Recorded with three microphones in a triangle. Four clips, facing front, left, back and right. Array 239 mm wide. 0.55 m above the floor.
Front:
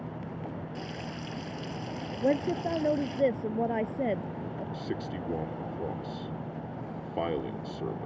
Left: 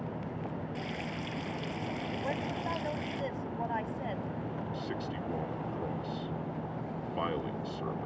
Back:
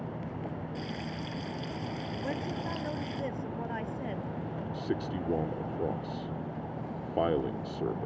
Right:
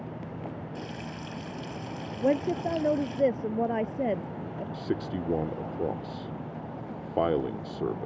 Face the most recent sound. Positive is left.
turn(degrees=-110)